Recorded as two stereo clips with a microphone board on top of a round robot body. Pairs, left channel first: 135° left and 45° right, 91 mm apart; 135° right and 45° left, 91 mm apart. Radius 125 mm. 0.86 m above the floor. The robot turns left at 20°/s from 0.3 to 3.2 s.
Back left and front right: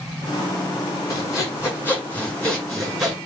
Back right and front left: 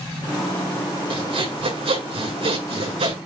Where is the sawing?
80° left, 7.5 m; by 3.2 s 40° left, 7.5 m.